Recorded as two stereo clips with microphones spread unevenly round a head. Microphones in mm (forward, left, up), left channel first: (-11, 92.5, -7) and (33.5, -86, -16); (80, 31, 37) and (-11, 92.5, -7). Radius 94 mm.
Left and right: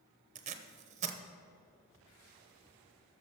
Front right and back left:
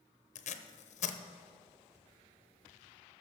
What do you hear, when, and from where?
0.3 s tape being pulled: 20° right, 0.8 m